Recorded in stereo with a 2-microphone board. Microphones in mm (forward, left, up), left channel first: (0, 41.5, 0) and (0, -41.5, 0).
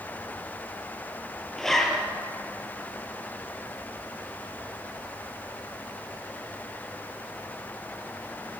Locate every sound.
1.6 s a zipper: 5° left (ahead or behind), 2.5 m